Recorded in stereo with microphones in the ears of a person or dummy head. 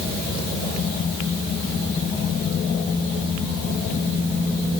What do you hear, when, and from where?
Only background noise.